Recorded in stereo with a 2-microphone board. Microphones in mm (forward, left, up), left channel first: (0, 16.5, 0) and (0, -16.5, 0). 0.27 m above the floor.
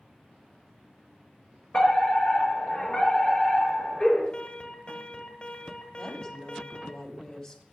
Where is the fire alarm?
35° left (ahead or behind), 6.5 m.